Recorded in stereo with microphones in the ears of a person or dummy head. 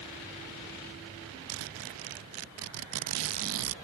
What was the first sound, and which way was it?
A zipper, 75° right (ahead or behind).